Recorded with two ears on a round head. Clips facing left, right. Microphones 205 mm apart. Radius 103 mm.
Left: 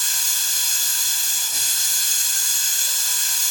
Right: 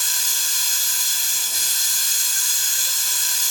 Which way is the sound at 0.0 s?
55° right (ahead or behind).